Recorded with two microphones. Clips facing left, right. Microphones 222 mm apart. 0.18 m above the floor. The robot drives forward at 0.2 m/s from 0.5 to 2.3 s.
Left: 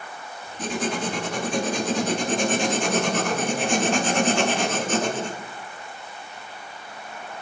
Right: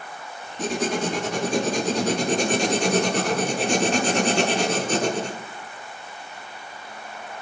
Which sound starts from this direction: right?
Writing, at 0.6 s.